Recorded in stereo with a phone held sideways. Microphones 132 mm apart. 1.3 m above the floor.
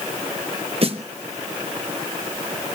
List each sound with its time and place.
0.8 s a snare drum: 45° right (ahead or behind), 1.1 m